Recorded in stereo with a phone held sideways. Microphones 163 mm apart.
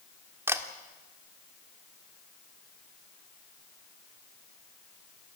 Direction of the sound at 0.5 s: 15° right (ahead or behind).